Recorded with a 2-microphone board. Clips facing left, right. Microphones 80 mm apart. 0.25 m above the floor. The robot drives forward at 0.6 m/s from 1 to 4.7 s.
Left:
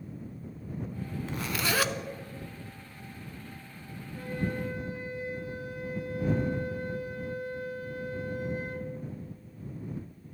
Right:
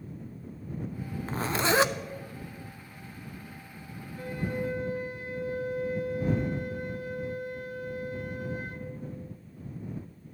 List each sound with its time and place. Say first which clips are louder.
1.3 s a zipper: right 5 dB; 35° right (ahead or behind), 0.5 m; by 1.9 s 20° right (ahead or behind), 0.9 m
4.2 s a flute: even; 35° left (ahead or behind), 4 m